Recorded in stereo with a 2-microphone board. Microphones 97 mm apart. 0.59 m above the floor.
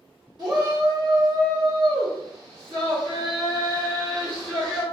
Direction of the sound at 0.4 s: 45° right (ahead or behind).